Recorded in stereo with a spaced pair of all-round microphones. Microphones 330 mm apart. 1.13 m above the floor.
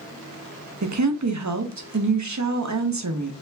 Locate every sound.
0.8 s a woman speaking: 55° right (ahead or behind), 0.7 m